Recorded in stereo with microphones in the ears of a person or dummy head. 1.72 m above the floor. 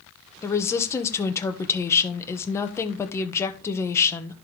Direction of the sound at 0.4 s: 15° left (ahead or behind).